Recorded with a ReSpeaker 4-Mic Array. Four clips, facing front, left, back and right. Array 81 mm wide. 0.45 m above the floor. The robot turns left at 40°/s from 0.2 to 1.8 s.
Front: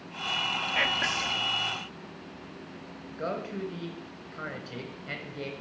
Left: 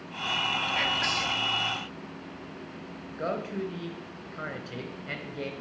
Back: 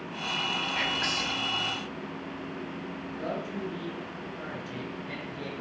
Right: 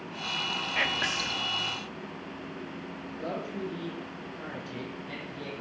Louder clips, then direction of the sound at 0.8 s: Left 1 dB, front 1 dB; 35° right.